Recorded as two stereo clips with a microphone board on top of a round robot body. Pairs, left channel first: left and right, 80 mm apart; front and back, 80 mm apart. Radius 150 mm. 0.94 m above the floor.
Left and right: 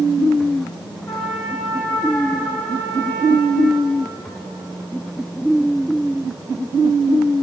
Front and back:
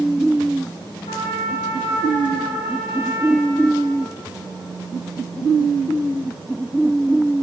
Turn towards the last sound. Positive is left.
turn(degrees=25)